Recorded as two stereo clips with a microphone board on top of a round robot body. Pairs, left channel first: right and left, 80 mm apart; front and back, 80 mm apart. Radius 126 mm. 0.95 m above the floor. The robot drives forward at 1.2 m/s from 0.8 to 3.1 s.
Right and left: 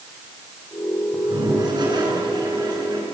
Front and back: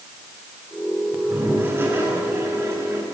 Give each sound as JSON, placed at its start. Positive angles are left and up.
{"t": 1.1, "sound": "a toilet flushing", "azimuth_deg": 115, "distance_m": 8.5}